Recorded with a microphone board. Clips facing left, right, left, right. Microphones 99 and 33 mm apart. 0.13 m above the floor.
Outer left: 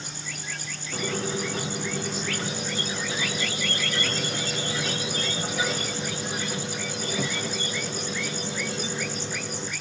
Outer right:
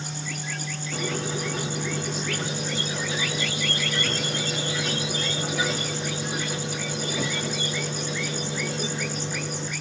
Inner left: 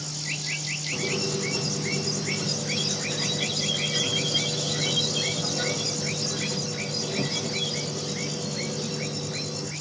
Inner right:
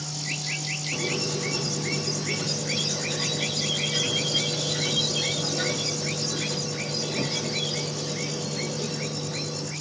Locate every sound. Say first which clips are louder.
0.9 s a squeak: outer left 1 dB, inner left 1 dB; 15° right (ahead or behind), 2.5 m